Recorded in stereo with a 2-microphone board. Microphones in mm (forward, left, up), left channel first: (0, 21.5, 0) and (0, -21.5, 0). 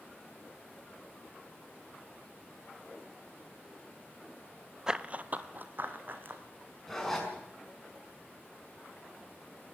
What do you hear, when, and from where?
4.9 s running footsteps: 15° right (ahead or behind), 0.6 m; by 6.4 s 50° right (ahead or behind), 2.5 m
6.9 s a zipper: 10° left (ahead or behind), 5.5 m